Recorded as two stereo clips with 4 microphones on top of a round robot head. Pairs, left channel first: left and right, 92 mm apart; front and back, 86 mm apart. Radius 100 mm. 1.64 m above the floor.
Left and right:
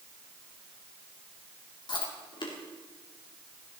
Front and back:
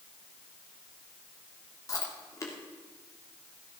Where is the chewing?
55° left, 2.5 m.